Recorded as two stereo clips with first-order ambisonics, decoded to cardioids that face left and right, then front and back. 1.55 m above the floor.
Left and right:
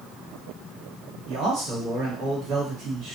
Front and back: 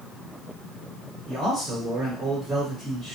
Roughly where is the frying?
I don't hear frying.